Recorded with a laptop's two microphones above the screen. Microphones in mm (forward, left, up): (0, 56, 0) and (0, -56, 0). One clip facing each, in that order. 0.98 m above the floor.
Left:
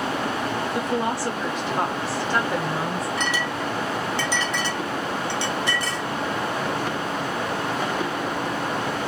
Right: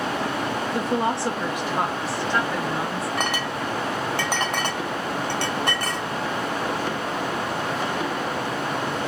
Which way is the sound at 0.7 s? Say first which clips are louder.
Right 2 dB; 35° right (ahead or behind).